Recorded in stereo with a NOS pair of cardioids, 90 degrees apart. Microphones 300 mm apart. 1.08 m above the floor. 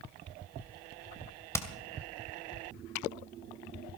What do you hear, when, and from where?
1.5 s hammering: 10° left, 2 m